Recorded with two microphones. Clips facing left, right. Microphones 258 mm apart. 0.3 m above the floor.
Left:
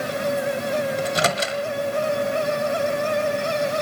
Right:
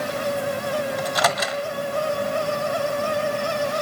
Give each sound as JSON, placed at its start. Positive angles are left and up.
{"t": 1.0, "sound": "a microwave", "side_deg": 30, "distance_m": 1.5}